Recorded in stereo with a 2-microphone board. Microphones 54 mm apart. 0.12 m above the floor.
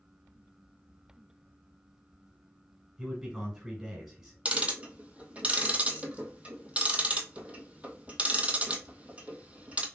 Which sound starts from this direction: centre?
A man speaking, at 3.0 s.